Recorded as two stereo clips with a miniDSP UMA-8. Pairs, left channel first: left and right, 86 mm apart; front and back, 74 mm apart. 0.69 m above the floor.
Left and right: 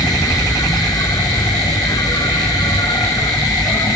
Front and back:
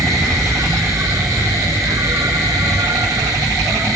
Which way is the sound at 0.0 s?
135° left.